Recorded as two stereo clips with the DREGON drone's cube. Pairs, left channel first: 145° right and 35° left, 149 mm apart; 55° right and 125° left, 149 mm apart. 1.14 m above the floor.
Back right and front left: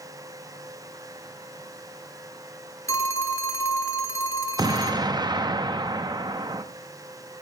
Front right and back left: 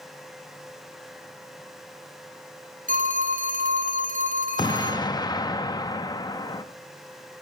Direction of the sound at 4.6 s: 10° right.